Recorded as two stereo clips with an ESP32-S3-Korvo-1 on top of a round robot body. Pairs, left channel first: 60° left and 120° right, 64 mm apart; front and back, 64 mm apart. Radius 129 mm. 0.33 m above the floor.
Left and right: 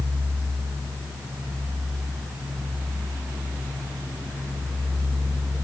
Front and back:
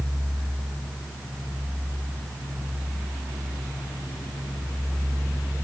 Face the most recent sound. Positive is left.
No sound to turn to.